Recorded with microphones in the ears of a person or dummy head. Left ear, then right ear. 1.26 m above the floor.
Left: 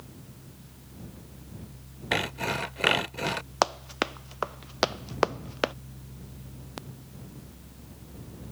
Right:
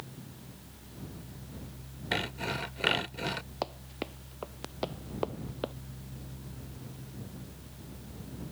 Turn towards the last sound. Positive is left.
turn(degrees=55)  # may be behind; listen again after turning